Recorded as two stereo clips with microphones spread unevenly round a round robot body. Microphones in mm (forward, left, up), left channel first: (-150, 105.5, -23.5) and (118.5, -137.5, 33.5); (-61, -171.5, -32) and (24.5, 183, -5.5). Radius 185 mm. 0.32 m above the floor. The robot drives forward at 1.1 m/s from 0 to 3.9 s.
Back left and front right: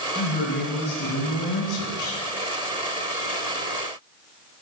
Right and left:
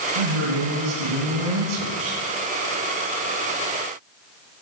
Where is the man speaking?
65° left, 3 m; by 2.2 s 115° left, 3 m.